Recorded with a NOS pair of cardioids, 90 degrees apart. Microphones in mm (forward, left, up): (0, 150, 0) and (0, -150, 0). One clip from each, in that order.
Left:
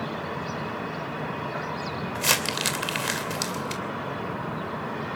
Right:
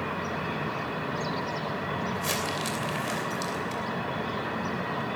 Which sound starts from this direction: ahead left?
Crumpling, at 2.1 s.